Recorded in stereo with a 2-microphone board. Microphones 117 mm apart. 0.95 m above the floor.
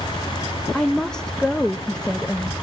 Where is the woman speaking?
5° left (ahead or behind), 0.6 m.